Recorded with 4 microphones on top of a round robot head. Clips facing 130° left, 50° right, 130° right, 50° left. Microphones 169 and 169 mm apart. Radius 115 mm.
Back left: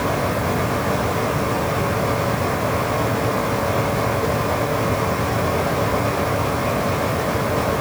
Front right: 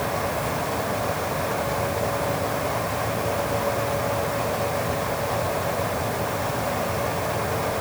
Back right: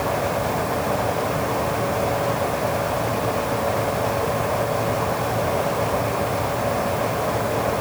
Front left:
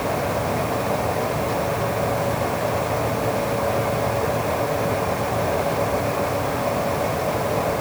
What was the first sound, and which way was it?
Only background noise.